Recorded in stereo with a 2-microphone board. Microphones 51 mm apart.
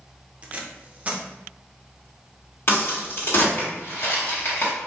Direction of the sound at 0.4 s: 30° right (ahead or behind).